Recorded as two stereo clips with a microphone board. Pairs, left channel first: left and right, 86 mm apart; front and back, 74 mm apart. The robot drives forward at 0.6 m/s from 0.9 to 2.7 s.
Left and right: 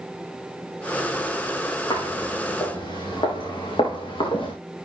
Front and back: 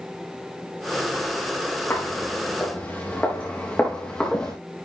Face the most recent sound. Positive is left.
turn(degrees=75)